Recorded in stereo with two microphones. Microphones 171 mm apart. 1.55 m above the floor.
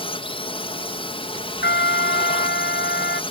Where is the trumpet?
80° left.